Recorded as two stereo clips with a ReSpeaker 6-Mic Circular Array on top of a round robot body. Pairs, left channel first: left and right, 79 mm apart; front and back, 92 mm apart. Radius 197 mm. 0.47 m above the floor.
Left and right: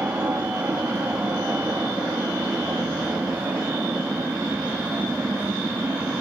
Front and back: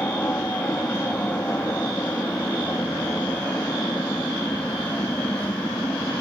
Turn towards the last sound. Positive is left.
turn(degrees=-50)